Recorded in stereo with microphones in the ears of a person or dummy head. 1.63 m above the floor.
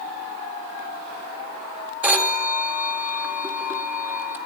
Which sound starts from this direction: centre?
A phone ringing, at 2.0 s.